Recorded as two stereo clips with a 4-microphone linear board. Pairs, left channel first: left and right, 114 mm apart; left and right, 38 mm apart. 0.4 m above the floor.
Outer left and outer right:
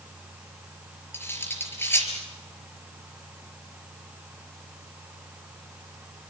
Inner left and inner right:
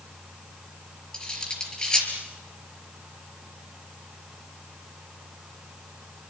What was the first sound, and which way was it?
Cutlery clinking, 20° left (ahead or behind).